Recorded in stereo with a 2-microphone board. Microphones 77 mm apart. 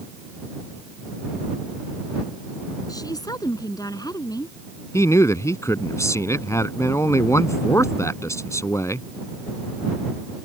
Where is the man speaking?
40° left (ahead or behind).